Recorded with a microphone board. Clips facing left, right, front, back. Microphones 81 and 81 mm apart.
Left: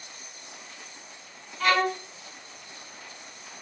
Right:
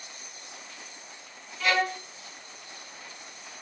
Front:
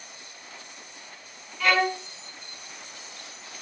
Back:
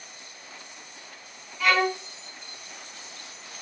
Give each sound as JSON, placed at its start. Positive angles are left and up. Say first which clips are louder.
{"t": 1.6, "sound": "a violin", "louder": "left 3 dB, even", "azimuth_deg": 95, "distance_m": 1.6}